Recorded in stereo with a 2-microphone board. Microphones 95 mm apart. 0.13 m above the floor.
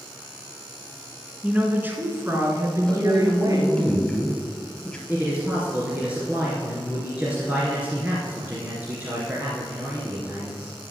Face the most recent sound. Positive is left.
turn(degrees=-15)  # may be behind; listen again after turning